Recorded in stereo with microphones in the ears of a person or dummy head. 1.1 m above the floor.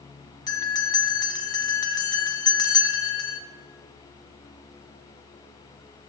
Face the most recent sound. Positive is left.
turn(degrees=15)  # may be behind; listen again after turning